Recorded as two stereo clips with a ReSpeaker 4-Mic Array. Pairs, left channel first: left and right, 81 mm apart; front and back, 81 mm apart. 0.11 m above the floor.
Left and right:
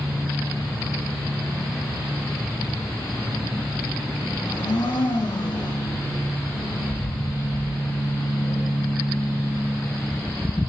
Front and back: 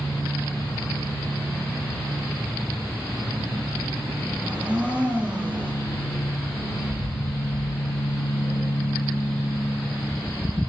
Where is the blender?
105° left, 4 m.